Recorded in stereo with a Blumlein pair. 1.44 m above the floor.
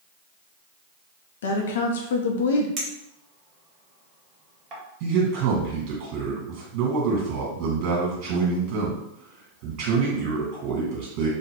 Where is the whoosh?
I don't hear a whoosh.